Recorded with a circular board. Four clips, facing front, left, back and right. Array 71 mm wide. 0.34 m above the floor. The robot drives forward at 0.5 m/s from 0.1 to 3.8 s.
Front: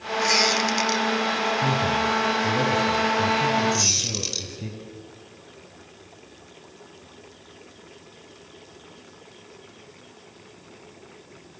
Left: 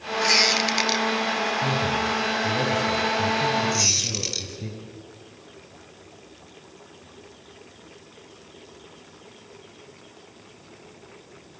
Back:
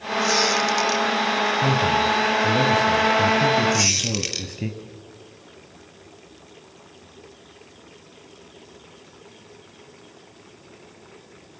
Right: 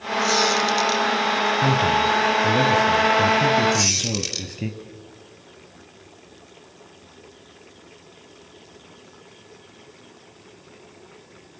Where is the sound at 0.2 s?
65° left, 1.1 m; by 1.1 s 85° left, 1.0 m.